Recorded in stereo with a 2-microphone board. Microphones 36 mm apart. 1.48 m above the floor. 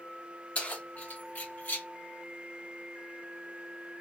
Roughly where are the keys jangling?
Left.